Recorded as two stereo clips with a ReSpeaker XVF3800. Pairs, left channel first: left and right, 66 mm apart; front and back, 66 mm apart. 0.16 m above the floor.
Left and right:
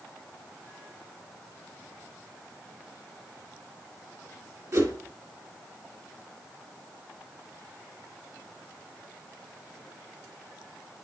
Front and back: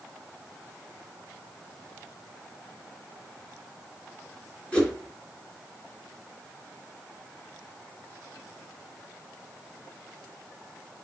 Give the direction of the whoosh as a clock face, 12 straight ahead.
2 o'clock.